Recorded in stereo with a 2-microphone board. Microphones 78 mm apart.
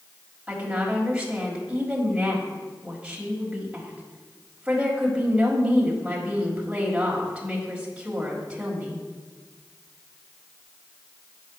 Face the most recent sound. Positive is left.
turn(degrees=-15)  # may be behind; listen again after turning